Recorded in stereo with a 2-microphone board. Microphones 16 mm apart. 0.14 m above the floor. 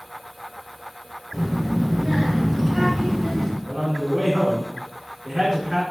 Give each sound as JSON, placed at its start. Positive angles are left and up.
{"t": 1.3, "sound": "a child speaking", "side_deg": -10, "distance_m": 2.0}
{"t": 3.6, "sound": "a man speaking", "side_deg": -10, "distance_m": 1.1}